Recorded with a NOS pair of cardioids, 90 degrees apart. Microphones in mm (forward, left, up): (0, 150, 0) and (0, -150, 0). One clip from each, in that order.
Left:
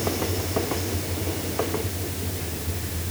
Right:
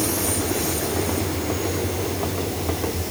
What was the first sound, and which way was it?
Only background noise.